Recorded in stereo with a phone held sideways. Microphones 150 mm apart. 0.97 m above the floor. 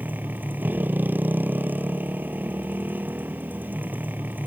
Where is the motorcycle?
10° right (ahead or behind).